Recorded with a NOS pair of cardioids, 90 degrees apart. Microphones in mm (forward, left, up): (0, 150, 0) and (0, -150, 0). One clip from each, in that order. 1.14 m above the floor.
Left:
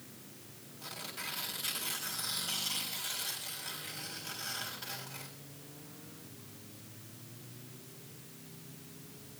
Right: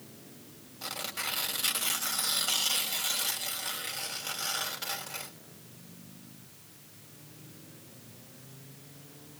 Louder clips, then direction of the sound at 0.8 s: Right 7 dB; 65° right.